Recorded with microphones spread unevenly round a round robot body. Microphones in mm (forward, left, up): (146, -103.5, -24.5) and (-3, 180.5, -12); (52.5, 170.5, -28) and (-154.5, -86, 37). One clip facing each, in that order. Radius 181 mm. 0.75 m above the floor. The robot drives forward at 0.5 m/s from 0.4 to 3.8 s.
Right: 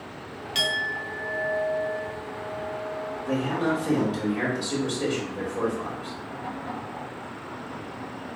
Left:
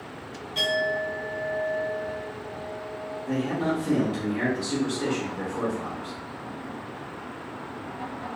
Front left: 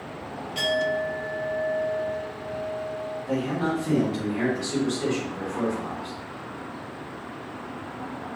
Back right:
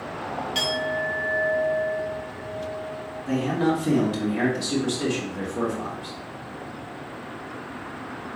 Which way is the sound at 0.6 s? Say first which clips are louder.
Left 8 dB, front left 4 dB; 70° right.